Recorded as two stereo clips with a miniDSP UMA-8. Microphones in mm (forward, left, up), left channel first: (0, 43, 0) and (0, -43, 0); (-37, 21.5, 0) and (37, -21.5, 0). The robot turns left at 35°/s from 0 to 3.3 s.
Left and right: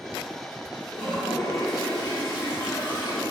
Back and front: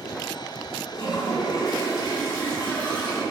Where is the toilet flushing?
150° left, 2 m; by 3.2 s 70° left, 2 m.